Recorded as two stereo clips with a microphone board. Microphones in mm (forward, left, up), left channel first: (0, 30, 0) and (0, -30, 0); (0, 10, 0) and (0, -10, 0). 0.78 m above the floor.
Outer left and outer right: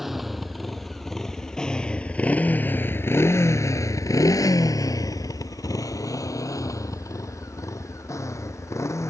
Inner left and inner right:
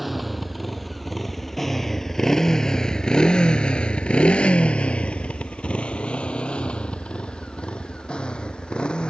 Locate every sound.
0.0 s a motorcycle: 5° right (ahead or behind); by 9.1 s 55° left (ahead or behind)